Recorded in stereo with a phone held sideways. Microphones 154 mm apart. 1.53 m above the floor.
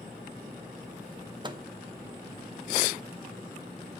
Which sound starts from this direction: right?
A microwave, at 1.4 s.